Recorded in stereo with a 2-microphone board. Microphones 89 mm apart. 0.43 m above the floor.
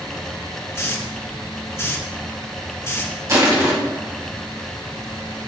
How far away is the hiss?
About 1.1 m.